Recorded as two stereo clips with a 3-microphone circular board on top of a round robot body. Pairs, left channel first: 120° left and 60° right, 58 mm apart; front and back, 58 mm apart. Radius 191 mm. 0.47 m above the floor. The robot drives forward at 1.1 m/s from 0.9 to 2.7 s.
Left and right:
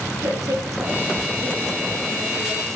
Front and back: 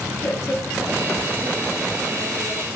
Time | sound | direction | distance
0.2 | a woman speaking | 45° right | 8 m